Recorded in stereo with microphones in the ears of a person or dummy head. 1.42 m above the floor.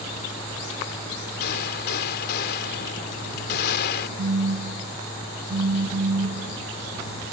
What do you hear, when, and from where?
1.4 s a gunshot: 65° left (ahead or behind)
4.2 s a phone buzzing: 60° right (ahead or behind)